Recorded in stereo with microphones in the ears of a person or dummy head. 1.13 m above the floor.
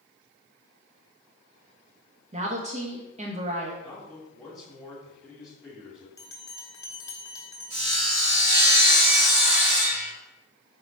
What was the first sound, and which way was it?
A woman speaking, 30° right (ahead or behind).